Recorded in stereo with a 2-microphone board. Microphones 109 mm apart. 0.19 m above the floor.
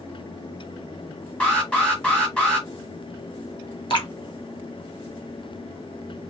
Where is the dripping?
50° left (ahead or behind), 1.0 m.